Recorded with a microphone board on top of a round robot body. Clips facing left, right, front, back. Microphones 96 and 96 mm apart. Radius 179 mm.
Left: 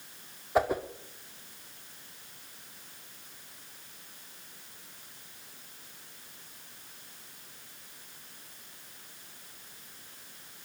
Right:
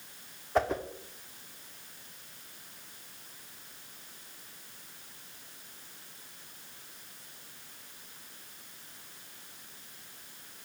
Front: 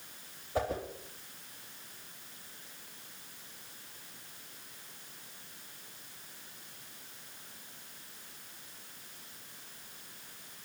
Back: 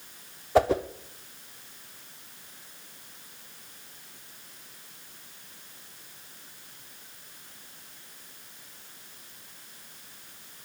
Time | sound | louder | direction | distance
0.6 | a whoosh | left 2 dB, back 11 dB | 175° left | 0.7 m